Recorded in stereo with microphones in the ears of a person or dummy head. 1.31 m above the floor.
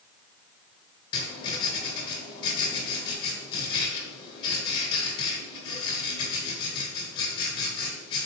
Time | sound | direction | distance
1.1 | writing | 30° left (ahead or behind) | 1.7 m